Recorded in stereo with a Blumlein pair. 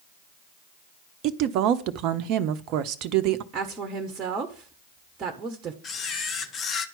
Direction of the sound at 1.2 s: 40° right.